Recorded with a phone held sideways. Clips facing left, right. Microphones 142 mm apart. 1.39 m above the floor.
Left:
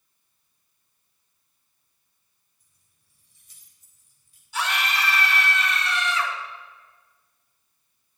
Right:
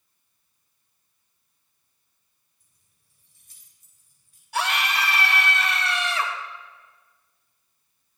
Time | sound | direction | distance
2.6 | keys jangling | 60° right (ahead or behind) | 4 m
4.5 | a scream | 65° right (ahead or behind) | 2 m